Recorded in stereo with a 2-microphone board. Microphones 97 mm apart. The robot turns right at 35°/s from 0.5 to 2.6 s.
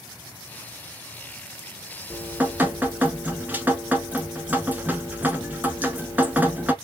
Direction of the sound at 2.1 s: 15° right (ahead or behind).